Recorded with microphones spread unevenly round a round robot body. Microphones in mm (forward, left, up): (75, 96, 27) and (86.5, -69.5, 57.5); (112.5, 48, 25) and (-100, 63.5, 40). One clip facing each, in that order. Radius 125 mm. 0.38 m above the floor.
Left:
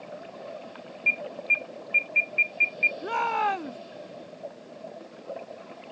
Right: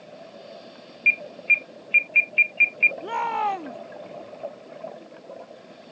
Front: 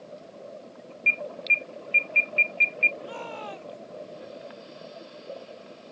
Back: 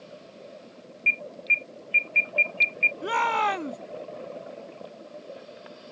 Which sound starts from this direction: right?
An alarm, at 1.1 s.